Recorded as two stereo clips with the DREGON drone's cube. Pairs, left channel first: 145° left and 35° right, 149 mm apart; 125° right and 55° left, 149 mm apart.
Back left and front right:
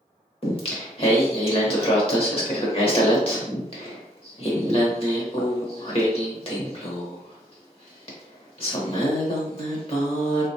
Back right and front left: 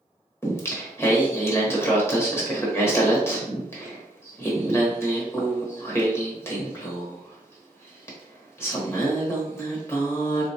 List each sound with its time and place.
0.4 s singing: 170° left, 0.9 m